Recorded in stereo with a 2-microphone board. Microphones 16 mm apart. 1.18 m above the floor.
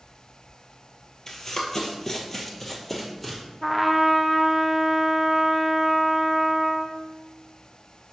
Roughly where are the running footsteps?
Left.